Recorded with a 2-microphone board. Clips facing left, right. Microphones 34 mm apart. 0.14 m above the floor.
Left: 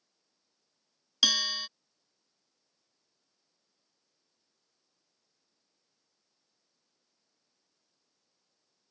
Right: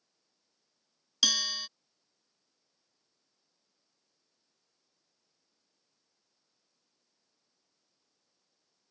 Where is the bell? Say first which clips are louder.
Left 2 dB; 10° left (ahead or behind).